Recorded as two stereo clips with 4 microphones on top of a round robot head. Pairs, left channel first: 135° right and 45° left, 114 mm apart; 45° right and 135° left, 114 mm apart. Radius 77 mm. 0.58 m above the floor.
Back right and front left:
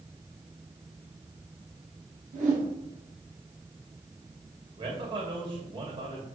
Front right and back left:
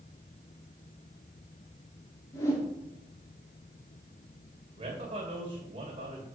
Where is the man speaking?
95° left, 3 m.